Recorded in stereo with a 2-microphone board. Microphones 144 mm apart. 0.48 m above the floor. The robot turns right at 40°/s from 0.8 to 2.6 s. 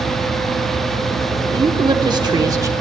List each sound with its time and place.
1.5 s a woman speaking: 90° right, 0.8 m; by 2.7 s 50° right, 0.8 m